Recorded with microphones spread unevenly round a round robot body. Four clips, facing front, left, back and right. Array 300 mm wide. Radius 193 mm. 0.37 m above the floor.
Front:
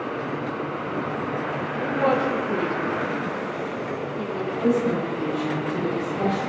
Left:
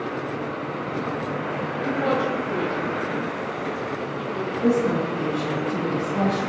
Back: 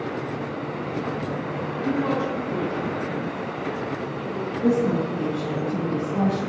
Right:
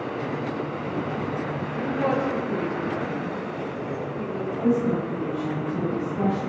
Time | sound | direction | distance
1.8 | a woman speaking | 5° left | 1.1 m
4.6 | a woman speaking | 120° left | 3 m